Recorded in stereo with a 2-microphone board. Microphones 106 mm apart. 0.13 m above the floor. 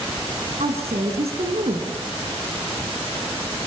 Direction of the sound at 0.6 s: 75° right (ahead or behind).